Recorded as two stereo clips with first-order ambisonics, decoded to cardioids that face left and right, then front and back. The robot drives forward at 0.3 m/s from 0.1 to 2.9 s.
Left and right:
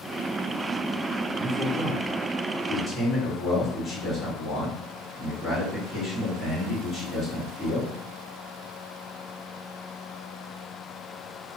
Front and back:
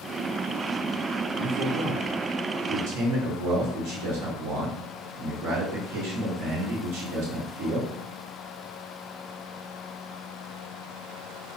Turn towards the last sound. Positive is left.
turn(degrees=170)